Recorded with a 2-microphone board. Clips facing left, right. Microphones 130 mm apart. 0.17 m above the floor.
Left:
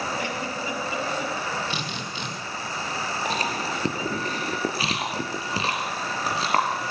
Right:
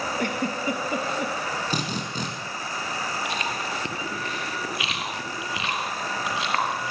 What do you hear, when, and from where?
0.2 s a giggle: 55° right (ahead or behind), 3.5 m
1.7 s a drill: 45° right (ahead or behind), 6.5 m
3.2 s chewing: 35° left (ahead or behind), 4 m